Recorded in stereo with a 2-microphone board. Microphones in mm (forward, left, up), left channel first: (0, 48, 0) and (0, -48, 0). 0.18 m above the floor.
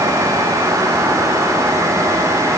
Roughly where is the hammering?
No hammering in this recording.